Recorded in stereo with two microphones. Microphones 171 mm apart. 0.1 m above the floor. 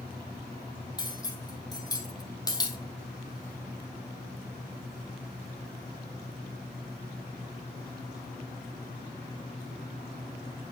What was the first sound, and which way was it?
Cutlery clinking, 20° left (ahead or behind).